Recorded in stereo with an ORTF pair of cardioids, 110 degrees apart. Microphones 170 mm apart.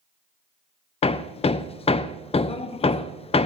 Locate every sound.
1.0 s hammering: 40° left, 0.5 m